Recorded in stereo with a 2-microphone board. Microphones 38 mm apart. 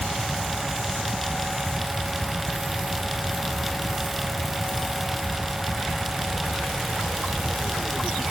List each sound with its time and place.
Only background noise.